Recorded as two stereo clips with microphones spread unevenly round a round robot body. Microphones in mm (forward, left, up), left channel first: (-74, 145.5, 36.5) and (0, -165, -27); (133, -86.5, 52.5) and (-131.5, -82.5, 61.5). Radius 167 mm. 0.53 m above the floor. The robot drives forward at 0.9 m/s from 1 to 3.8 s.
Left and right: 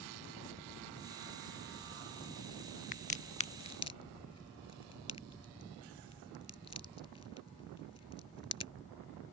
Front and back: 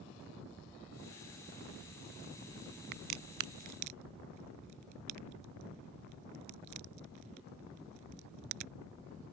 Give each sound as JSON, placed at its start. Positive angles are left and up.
{"t": 2.9, "sound": "a crack", "azimuth_deg": 160}